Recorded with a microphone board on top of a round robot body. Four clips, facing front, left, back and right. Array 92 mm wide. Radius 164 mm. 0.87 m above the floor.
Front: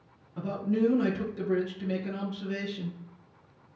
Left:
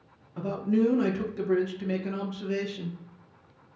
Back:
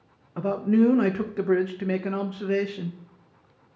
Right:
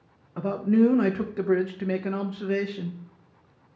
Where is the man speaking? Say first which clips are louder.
Right 4 dB, back 7 dB; 140° right, 0.7 m.